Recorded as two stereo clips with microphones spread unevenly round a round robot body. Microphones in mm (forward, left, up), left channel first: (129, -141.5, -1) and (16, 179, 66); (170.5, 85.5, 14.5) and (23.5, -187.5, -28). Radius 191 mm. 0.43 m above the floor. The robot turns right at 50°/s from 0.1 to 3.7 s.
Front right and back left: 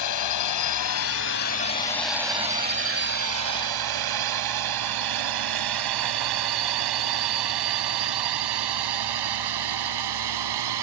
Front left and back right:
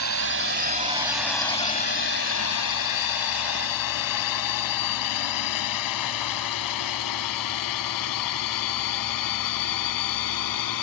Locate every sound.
0.0 s a drone: 90° right; by 10.8 s 105° left